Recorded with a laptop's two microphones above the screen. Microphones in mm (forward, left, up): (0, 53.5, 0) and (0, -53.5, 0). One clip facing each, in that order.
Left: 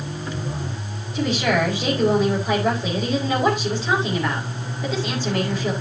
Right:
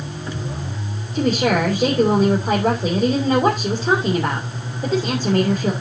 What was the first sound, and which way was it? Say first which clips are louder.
A woman speaking: right 3 dB; 35° right (ahead or behind).